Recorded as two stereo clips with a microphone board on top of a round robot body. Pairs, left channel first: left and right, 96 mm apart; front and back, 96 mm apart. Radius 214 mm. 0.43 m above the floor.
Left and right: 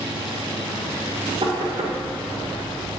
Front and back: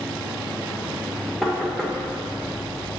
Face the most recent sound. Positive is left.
turn(degrees=-90)